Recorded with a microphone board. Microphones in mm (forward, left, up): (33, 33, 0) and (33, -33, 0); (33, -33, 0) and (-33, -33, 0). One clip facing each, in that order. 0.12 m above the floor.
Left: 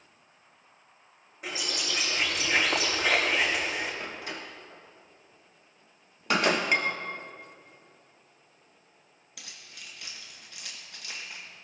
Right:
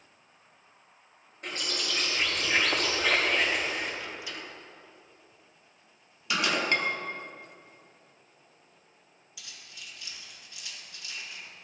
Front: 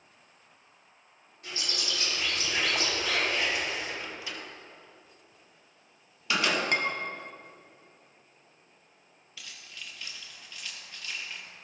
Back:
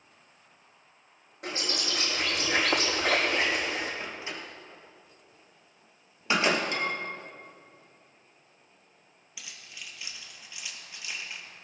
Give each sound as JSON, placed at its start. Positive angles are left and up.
{"t": 1.4, "sound": "a bird", "azimuth_deg": 175, "distance_m": 4.5}
{"t": 4.0, "sound": "a door slam", "azimuth_deg": 125, "distance_m": 2.0}
{"t": 6.7, "sound": "dishes clattering", "azimuth_deg": 15, "distance_m": 1.9}
{"t": 9.4, "sound": "keys jangling", "azimuth_deg": 105, "distance_m": 2.5}